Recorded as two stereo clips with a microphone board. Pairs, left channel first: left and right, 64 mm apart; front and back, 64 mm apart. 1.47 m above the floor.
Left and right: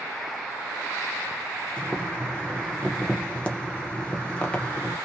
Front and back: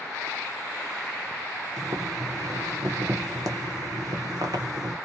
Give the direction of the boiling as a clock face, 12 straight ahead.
7 o'clock.